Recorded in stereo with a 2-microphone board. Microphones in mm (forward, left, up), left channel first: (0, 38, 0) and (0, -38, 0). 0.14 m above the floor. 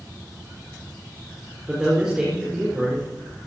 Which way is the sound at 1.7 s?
10° right (ahead or behind).